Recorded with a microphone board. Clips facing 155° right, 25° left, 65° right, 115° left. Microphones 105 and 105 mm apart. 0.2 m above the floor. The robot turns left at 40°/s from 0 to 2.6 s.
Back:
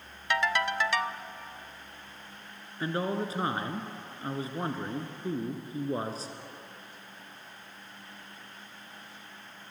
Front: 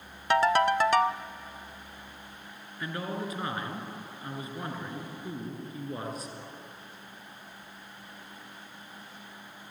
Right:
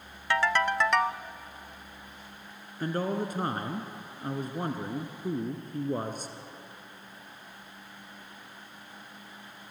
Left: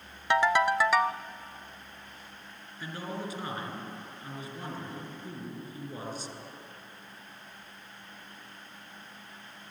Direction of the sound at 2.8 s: 100° right.